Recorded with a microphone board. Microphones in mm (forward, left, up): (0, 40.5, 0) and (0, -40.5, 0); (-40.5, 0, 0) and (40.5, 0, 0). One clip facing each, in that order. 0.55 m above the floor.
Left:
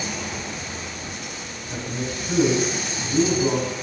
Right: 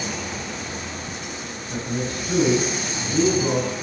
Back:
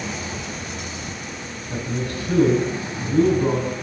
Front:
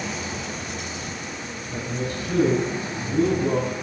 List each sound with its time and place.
1.7 s a man speaking: 175° left, 4.5 m